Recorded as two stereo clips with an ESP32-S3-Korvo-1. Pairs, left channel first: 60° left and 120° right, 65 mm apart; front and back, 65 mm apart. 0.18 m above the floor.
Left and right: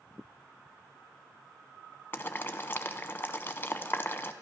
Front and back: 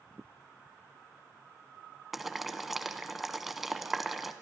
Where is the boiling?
95° left, 0.6 m.